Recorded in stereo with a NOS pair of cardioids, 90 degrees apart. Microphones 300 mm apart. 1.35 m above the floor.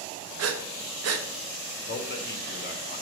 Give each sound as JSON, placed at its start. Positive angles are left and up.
{"t": 0.4, "sound": "breathing", "azimuth_deg": -60, "distance_m": 0.9}
{"t": 1.9, "sound": "a man speaking", "azimuth_deg": 35, "distance_m": 2.0}